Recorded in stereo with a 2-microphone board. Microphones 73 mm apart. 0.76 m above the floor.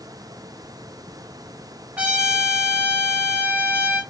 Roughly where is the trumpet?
Centre.